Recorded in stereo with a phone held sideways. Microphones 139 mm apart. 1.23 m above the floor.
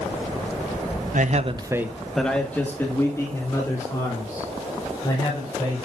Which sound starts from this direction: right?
A man speaking, at 1.1 s.